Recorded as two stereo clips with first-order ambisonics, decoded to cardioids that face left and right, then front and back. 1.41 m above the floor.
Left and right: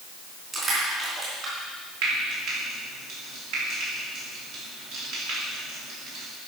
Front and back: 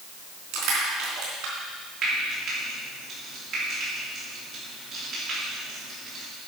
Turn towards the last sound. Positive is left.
turn(degrees=-110)